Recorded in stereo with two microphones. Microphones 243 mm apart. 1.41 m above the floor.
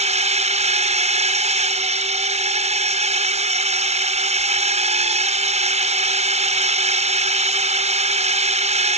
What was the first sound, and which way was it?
A drone, 30° right (ahead or behind).